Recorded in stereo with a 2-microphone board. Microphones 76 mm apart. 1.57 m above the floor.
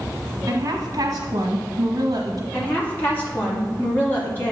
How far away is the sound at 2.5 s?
About 2.5 m.